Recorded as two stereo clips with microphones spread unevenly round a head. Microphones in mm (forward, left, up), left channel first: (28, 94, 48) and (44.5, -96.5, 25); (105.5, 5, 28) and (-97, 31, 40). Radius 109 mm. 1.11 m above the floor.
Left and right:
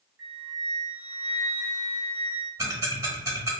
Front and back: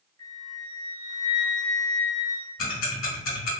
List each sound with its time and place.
0.2 s a flute: 130° right, 1.2 m
2.6 s ticking: 5° right, 1.2 m